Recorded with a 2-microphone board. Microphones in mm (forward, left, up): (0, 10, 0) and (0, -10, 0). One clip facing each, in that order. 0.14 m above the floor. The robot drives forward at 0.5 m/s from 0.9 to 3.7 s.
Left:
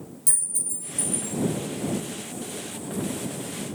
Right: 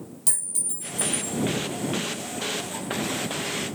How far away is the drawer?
No drawer in this recording.